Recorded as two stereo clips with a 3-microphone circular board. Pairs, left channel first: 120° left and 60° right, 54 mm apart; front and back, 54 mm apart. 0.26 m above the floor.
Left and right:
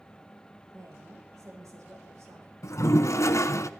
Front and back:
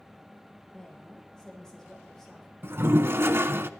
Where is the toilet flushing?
140° left, 0.9 m.